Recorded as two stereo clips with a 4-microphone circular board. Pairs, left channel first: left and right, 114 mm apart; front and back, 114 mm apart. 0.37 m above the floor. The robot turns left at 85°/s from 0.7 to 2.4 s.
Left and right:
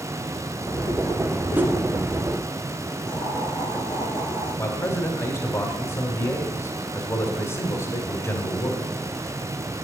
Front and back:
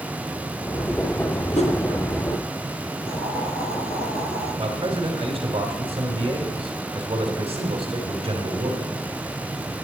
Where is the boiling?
30° left, 6 m.